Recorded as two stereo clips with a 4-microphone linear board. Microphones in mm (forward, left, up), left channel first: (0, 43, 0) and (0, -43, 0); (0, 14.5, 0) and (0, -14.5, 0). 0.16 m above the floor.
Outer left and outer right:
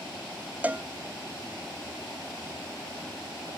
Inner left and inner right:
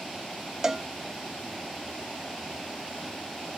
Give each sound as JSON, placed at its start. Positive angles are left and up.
{"t": 0.6, "sound": "a cowbell", "side_deg": -20}